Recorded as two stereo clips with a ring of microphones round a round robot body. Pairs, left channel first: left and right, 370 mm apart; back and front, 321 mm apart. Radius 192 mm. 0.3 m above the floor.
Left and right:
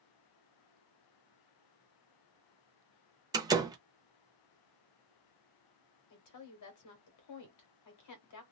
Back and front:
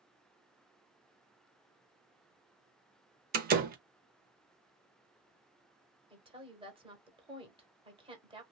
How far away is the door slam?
About 0.6 m.